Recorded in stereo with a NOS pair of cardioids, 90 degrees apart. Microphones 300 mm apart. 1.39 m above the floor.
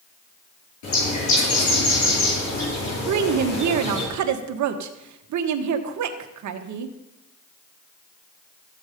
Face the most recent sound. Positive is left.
turn(degrees=-70)